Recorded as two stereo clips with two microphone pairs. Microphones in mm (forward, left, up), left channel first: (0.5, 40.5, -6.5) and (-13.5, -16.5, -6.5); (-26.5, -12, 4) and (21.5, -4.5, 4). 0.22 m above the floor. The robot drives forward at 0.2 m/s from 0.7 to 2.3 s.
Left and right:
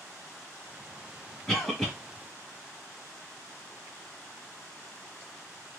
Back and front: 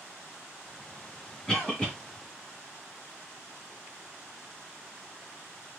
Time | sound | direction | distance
1.5 | a cough | 145° left | 1.1 m